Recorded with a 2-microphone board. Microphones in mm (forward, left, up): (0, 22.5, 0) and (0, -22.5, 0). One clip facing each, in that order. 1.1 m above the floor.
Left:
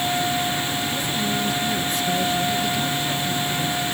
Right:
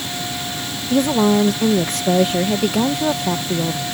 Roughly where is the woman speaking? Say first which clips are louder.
Right 9 dB; right.